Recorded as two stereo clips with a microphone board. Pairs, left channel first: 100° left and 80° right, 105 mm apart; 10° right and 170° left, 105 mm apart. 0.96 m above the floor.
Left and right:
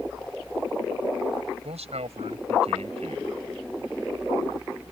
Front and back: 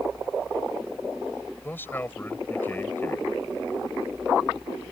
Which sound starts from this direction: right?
A man speaking, at 1.6 s.